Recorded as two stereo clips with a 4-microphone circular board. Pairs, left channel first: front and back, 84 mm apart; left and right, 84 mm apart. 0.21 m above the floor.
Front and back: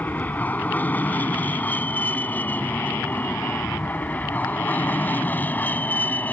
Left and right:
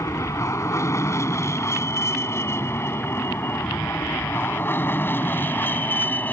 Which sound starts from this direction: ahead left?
An aircraft, at 0.0 s.